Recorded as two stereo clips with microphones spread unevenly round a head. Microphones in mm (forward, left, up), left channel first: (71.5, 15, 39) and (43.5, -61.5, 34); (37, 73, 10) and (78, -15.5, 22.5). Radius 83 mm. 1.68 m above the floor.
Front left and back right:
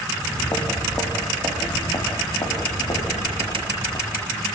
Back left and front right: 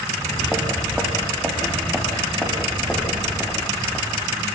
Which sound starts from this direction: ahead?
Footsteps, at 0.1 s.